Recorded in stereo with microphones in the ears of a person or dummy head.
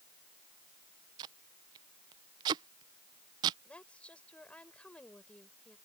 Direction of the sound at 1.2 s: 30° right (ahead or behind).